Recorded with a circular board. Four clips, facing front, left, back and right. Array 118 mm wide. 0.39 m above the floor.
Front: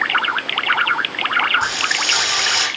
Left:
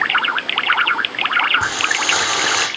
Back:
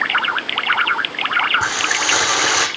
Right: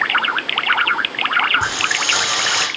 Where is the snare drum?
I don't hear a snare drum.